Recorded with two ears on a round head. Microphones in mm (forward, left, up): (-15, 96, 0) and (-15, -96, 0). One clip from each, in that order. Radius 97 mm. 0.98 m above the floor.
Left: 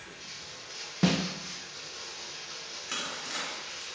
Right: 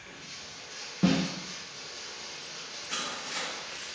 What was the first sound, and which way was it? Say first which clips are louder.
Running water: even; 45° left (ahead or behind).